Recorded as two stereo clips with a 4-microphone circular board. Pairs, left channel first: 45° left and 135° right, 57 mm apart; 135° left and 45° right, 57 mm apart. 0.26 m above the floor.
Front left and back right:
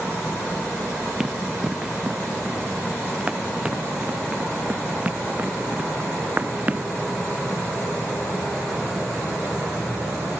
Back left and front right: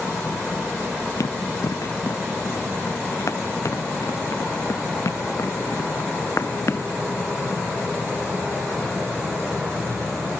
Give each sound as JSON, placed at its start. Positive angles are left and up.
{"t": 1.2, "sound": "running footsteps", "azimuth_deg": 145}